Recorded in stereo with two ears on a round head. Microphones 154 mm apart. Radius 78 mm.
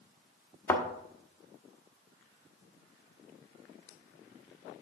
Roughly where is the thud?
Centre.